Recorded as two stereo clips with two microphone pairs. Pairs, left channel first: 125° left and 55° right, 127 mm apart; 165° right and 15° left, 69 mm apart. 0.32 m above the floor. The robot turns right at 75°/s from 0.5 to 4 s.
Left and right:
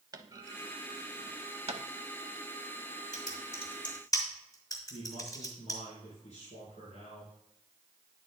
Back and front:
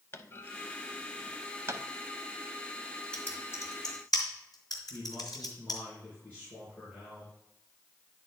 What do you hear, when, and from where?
0.1 s a clunk: 115° right, 0.6 m; by 1.8 s 15° right, 0.6 m
3.1 s typing on a keyboard: 120° left, 3 m; by 5.8 s 175° right, 3 m
4.9 s a man speaking: 135° left, 4 m